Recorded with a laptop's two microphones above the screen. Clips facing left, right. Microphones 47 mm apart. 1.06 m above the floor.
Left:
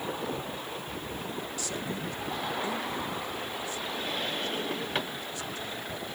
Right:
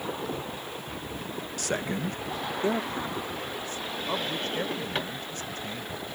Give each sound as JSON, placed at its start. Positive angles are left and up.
{"t": 1.6, "sound": "a man speaking", "side_deg": -60}